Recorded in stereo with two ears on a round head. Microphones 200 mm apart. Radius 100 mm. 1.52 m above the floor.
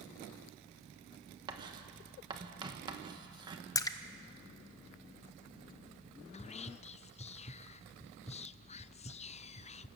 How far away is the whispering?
About 0.6 m.